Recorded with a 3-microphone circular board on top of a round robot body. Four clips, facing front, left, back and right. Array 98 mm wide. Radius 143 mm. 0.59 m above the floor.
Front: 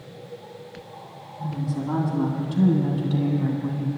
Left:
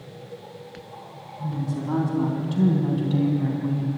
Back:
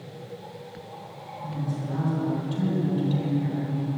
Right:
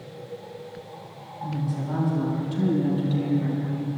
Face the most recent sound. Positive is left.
turn(degrees=45)